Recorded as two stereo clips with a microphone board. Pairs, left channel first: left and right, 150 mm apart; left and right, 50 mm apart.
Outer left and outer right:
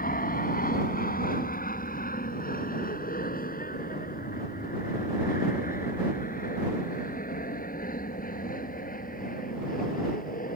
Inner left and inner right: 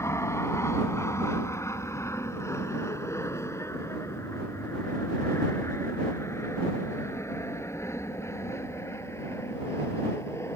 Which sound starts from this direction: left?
An aircraft, at 0.0 s.